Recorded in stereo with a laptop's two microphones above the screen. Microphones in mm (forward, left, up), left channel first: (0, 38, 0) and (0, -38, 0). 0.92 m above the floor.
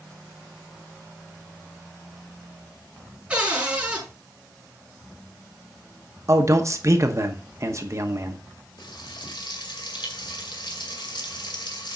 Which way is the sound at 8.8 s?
85° left.